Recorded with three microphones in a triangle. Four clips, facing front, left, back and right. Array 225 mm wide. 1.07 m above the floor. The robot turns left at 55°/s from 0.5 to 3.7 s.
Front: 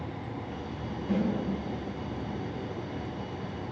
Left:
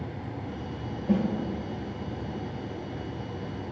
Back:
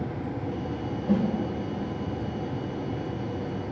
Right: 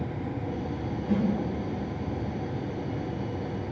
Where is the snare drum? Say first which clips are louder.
Left 2 dB, back 4 dB; 135° left, 3.5 m; by 1.2 s 125° left, 3.5 m.